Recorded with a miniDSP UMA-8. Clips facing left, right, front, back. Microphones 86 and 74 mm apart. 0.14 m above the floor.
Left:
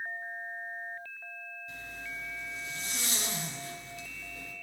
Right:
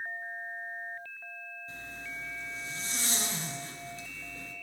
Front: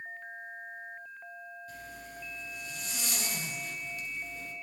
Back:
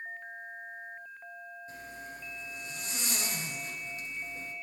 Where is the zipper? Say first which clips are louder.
Left 1 dB, back 1 dB; 130° right, 1.7 m.